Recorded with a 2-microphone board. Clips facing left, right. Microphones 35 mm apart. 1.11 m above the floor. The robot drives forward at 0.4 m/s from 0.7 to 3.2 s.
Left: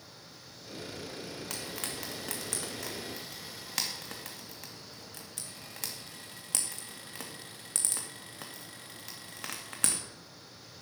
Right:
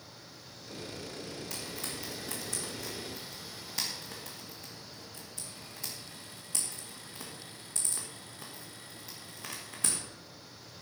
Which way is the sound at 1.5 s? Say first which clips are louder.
Left 1 dB; 70° left (ahead or behind).